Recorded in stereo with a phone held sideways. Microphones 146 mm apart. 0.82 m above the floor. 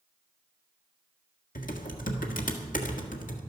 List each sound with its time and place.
1.6 s typing on a keyboard: 70° left (ahead or behind), 1.5 m